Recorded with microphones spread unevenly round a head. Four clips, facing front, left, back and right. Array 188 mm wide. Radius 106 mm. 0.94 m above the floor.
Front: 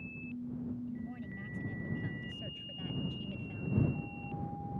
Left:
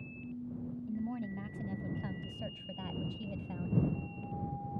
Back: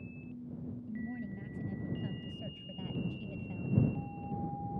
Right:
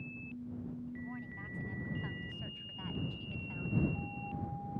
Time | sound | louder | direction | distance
0.9 | a woman speaking | left 6 dB, back 2 dB | 105° left | ?